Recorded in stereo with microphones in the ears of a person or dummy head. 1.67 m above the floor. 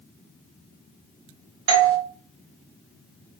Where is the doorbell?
75° right (ahead or behind), 1.1 m.